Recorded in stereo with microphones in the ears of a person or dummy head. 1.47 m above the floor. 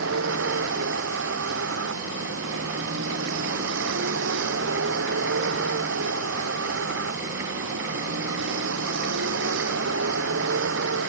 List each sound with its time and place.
0.0 s a vehicle: 70° right (ahead or behind)